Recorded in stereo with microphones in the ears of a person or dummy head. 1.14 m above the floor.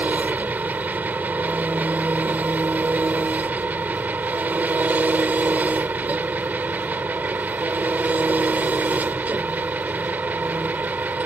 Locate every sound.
0.0 s an engine running: 10° right (ahead or behind)